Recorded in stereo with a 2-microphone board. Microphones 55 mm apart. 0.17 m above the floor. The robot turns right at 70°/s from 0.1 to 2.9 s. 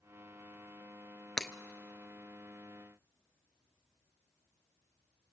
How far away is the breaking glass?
About 0.7 m.